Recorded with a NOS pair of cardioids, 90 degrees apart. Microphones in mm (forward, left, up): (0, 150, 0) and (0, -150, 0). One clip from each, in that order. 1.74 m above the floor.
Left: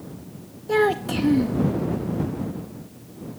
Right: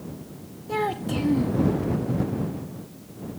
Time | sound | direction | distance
0.7 | a child speaking | 40° left | ?